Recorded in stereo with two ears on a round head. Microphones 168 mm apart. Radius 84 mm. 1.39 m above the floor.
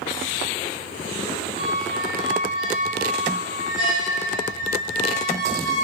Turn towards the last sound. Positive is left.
turn(degrees=25)  # may be behind; listen again after turning